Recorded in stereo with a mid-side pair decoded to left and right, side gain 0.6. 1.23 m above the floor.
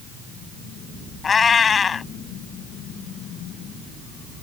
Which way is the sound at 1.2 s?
30° left.